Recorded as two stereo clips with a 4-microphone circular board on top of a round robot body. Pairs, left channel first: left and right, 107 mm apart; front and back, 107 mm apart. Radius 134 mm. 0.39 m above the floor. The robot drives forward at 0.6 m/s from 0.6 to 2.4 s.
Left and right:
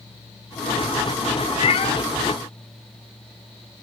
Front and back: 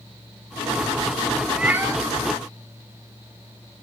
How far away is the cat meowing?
About 0.6 m.